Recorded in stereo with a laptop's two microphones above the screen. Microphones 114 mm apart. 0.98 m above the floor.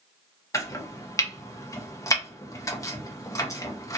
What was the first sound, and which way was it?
Chopping, 25° left (ahead or behind).